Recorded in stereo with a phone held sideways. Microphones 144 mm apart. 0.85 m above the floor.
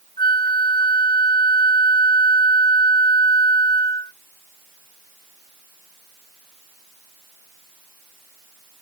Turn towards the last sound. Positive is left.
turn(degrees=30)  # may be behind; listen again after turning